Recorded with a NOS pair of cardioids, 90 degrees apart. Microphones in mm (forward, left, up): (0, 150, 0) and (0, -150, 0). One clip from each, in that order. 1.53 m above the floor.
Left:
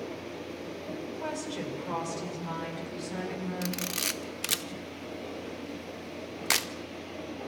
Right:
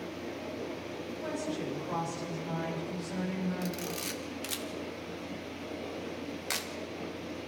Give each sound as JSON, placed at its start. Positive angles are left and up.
{"t": 1.0, "sound": "a woman speaking", "azimuth_deg": 60, "distance_m": 8.0}
{"t": 3.6, "sound": "a camera shutter", "azimuth_deg": 50, "distance_m": 1.2}